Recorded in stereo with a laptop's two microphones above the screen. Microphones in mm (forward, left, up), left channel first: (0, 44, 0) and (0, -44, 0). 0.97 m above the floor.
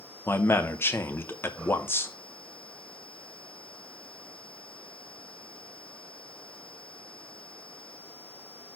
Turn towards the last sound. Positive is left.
turn(degrees=30)  # may be behind; listen again after turning